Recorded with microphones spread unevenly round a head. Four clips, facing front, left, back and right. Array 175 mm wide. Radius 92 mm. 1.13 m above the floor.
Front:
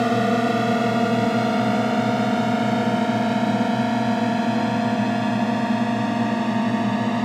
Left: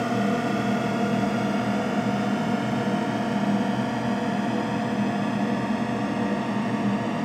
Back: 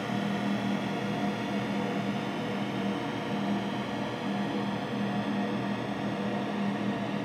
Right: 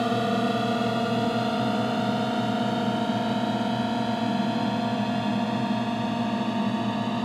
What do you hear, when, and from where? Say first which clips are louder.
0.0 s a drone: even, front 12 dB; 5° right